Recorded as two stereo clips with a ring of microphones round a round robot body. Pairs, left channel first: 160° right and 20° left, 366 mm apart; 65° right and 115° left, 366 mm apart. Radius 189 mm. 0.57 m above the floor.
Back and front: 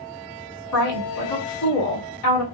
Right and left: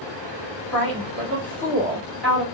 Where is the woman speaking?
155° right, 1.5 m.